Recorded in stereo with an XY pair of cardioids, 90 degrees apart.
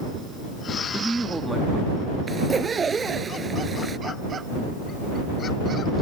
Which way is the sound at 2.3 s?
40° right.